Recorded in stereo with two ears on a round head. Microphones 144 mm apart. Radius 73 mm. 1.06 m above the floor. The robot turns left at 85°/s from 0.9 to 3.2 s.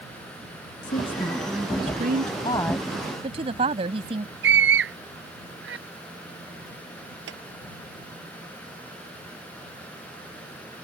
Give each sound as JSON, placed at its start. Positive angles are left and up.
{"t": 0.8, "sound": "a woman speaking", "azimuth_deg": 45}
{"t": 2.5, "sound": "a woman speaking", "azimuth_deg": 30}
{"t": 4.4, "sound": "a scream", "side_deg": -70}
{"t": 7.3, "sound": "a clap", "side_deg": -90}